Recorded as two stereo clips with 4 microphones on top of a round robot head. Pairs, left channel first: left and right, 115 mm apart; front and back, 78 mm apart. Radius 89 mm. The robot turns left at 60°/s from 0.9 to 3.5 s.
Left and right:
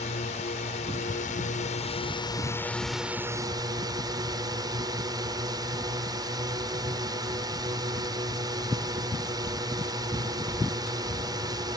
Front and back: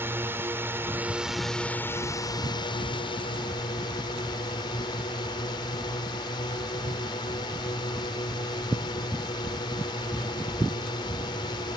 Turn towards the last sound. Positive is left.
turn(degrees=-35)